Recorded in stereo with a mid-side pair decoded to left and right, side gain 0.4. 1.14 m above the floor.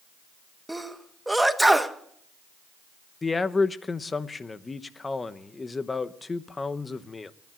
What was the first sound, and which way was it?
A sneeze, 10° right.